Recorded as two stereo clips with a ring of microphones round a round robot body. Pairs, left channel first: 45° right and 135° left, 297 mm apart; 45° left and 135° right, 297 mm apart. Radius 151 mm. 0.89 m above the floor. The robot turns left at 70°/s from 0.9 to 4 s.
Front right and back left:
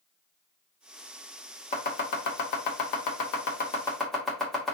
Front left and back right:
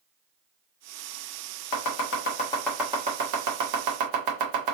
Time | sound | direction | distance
1.7 | chopping | 25° left | 0.9 m